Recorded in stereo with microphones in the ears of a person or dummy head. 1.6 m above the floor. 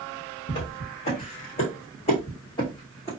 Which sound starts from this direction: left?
Footsteps, at 0.5 s.